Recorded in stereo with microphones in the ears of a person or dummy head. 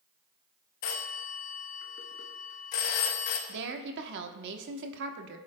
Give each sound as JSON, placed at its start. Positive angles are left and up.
{"t": 0.8, "sound": "a phone ringing", "side_deg": 45, "distance_m": 1.0}
{"t": 3.5, "sound": "a woman speaking", "side_deg": -70, "distance_m": 1.0}